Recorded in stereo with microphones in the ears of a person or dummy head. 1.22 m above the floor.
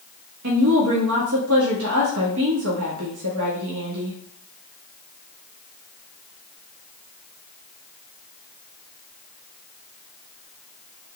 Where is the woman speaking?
80° right, 1.6 m.